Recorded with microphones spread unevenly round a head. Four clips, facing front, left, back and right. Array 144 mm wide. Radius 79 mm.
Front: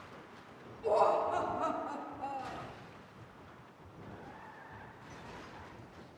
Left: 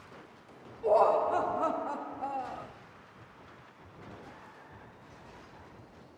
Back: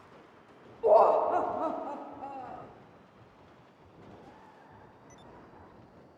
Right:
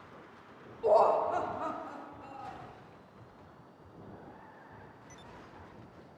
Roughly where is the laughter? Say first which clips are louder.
Even, back 7 dB; behind.